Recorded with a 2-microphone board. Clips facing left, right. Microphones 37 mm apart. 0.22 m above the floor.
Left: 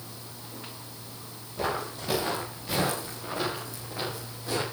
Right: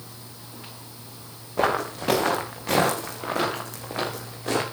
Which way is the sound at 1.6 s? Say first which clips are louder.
Right 7 dB; 85° right.